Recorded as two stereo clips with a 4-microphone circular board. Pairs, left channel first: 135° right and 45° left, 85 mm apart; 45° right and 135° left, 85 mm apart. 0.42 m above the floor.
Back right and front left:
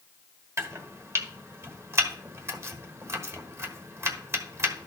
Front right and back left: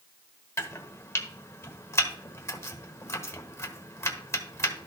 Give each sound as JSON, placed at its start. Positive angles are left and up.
{"t": 0.6, "sound": "chopping", "azimuth_deg": 0, "distance_m": 1.2}